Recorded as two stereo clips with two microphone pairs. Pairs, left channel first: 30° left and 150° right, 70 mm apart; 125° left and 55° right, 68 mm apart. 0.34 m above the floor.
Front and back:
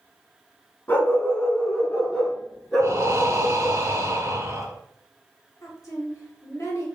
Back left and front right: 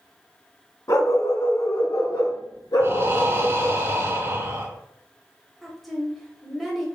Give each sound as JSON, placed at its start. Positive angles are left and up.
{"t": 0.9, "sound": "a dog barking", "azimuth_deg": 90, "distance_m": 0.7}
{"t": 2.8, "sound": "breathing", "azimuth_deg": -100, "distance_m": 0.7}
{"t": 5.6, "sound": "a woman speaking", "azimuth_deg": 40, "distance_m": 1.1}